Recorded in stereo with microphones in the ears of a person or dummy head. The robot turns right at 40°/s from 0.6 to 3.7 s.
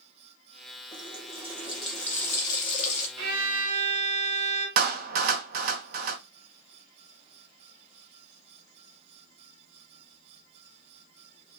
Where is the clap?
60° right (ahead or behind), 0.6 m.